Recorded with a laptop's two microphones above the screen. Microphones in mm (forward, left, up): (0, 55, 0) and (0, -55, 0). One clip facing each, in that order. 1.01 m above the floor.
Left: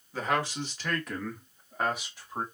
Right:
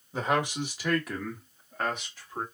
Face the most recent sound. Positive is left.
turn(degrees=15)  # may be behind; listen again after turning